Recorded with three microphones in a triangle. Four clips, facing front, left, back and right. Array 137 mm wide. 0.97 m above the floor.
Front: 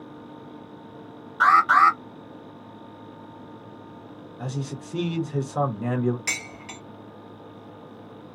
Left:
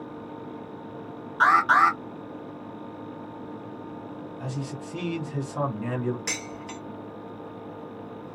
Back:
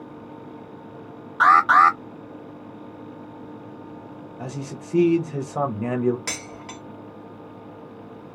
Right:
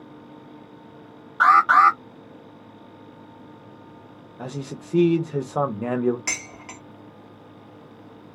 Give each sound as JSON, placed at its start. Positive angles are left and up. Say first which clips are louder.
{"t": 1.4, "sound": "an alarm", "louder": "right 4 dB, back 2 dB", "azimuth_deg": -130, "distance_m": 1.6}
{"t": 4.4, "sound": "a man speaking", "louder": "right 3 dB, front 1 dB", "azimuth_deg": -105, "distance_m": 0.8}
{"t": 6.3, "sound": "dishes clattering", "louder": "left 1 dB, back 1 dB", "azimuth_deg": -140, "distance_m": 1.0}